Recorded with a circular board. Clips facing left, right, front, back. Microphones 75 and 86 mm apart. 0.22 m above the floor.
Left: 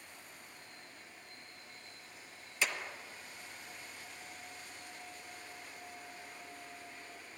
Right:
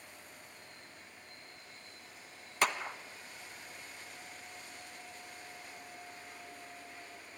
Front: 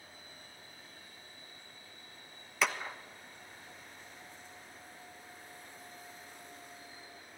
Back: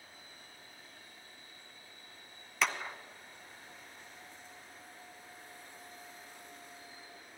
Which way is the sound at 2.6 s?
90° right.